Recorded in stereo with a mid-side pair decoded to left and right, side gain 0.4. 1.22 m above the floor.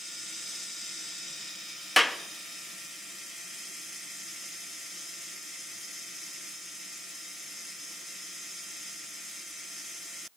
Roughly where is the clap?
Ahead.